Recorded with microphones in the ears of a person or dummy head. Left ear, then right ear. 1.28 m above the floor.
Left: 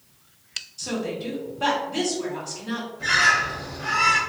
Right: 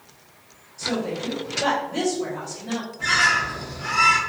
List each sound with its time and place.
0.8 s a woman speaking: 20° left (ahead or behind), 1.2 m
3.0 s a bird: 55° right (ahead or behind), 1.0 m